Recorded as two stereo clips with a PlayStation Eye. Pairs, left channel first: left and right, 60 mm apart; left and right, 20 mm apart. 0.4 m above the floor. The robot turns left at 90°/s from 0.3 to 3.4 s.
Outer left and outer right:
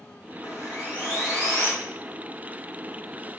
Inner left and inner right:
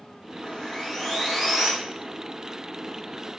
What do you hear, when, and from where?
0.4 s sawing: 65° left, 2.5 m; by 1.7 s 50° right, 2.5 m